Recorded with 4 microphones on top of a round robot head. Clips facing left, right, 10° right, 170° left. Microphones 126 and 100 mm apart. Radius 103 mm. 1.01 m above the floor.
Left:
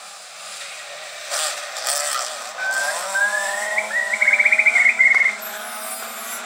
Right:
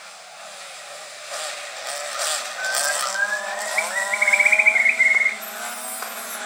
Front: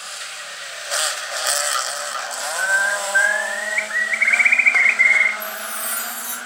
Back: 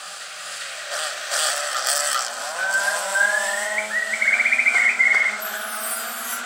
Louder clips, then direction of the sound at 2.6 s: Left 2 dB, front 3 dB; 30° right.